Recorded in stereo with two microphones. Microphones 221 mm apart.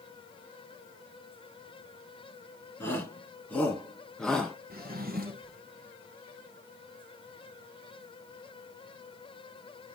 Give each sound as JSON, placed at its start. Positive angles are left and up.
{"t": 2.8, "sound": "a shout", "side_deg": 10, "distance_m": 3.5}
{"t": 4.7, "sound": "a drawer", "side_deg": -45, "distance_m": 1.3}